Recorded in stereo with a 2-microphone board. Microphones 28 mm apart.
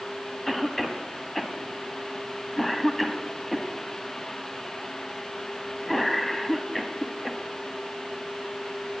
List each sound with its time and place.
0.5 s a cough: 5° left (ahead or behind), 1.5 m